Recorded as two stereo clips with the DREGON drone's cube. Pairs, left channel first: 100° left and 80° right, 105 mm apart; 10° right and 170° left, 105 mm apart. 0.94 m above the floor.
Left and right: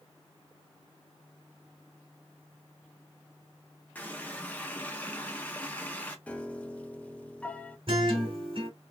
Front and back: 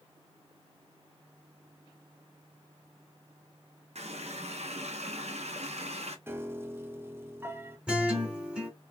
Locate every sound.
4.0 s a running tap: 175° left, 0.6 m
6.3 s a piano: 150° left, 0.6 m
7.9 s a guitar: 110° right, 1.7 m